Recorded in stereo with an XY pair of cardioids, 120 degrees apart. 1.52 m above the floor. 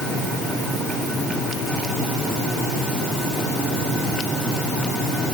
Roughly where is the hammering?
No hammering in this recording.